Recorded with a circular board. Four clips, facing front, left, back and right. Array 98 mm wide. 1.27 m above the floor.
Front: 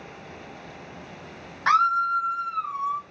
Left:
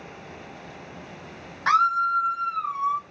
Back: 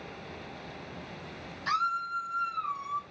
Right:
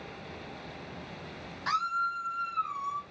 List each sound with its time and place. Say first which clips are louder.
1.7 s a scream: left 10 dB, front 10 dB; 30° left, 0.6 m; by 3.0 s 65° left, 1.5 m